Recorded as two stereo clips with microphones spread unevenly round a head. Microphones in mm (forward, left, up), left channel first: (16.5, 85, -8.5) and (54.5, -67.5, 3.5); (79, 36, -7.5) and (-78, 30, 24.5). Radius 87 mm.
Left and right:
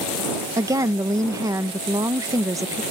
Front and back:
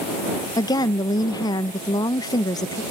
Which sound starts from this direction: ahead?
A woman speaking, at 0.6 s.